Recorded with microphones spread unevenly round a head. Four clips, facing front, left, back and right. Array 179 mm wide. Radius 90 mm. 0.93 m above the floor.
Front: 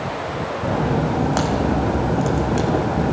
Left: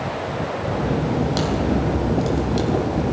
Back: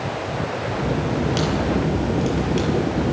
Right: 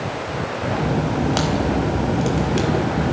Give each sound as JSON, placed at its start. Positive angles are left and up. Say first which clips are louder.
{"t": 0.6, "sound": "a crack", "louder": "right 2 dB, front 5 dB", "azimuth_deg": -35, "distance_m": 5.0}